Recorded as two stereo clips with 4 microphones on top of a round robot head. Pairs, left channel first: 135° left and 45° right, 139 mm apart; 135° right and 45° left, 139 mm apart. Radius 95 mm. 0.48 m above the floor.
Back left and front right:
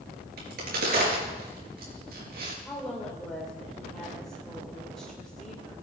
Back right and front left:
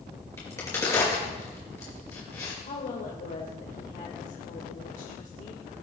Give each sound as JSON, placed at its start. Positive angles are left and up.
{"t": 0.4, "sound": "a crack", "azimuth_deg": -60, "distance_m": 4.5}
{"t": 2.6, "sound": "a woman speaking", "azimuth_deg": -140, "distance_m": 2.0}